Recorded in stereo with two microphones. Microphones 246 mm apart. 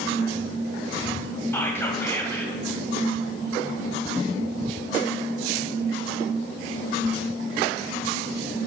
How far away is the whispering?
About 1.4 m.